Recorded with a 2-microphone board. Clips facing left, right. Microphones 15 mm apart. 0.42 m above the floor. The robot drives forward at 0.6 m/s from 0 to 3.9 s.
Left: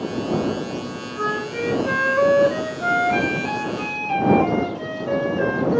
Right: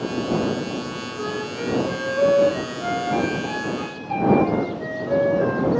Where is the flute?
80° left, 2.0 m; by 5.8 s 45° left (ahead or behind), 2.5 m.